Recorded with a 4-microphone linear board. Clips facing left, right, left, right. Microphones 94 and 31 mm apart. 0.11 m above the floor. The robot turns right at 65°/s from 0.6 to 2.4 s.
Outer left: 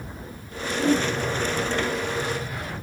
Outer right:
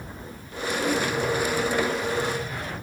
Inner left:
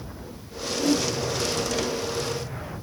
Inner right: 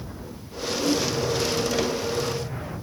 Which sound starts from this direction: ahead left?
A whoosh, at 0.7 s.